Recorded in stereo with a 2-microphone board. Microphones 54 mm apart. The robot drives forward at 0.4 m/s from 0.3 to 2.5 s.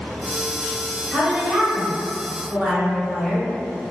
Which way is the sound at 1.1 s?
15° right (ahead or behind).